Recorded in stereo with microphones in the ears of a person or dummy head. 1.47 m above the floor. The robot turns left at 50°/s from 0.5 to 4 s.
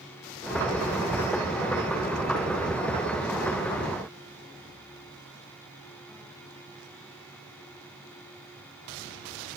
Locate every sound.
Only background noise.